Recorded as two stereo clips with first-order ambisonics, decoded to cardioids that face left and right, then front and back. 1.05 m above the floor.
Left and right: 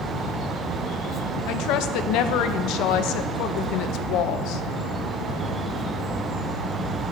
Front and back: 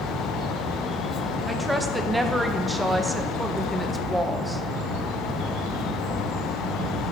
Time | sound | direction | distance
1.5 | a woman speaking | 95° left | 0.5 m